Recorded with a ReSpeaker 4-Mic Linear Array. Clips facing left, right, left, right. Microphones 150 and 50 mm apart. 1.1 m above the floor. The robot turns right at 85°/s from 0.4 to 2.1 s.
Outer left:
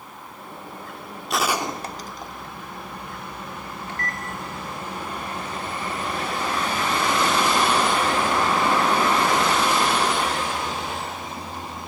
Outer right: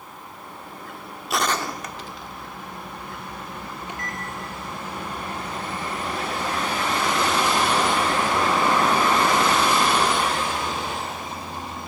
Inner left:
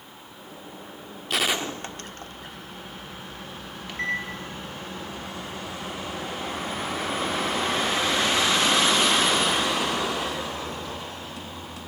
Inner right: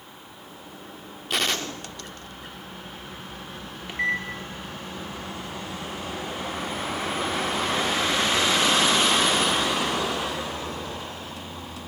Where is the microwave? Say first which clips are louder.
Outer left 2 dB, inner right 3 dB; 20° right (ahead or behind), 3 m.